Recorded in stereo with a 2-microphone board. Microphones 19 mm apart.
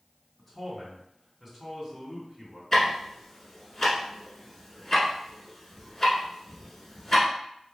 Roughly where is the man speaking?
Centre.